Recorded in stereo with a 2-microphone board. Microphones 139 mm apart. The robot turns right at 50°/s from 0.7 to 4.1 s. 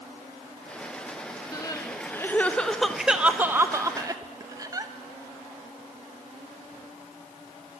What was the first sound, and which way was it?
Crying, 25° left (ahead or behind).